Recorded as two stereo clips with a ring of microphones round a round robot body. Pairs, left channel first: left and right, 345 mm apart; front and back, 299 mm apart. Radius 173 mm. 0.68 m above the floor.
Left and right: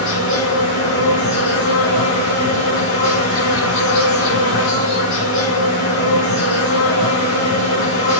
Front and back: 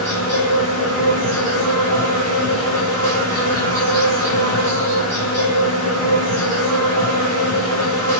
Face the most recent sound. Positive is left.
turn(degrees=145)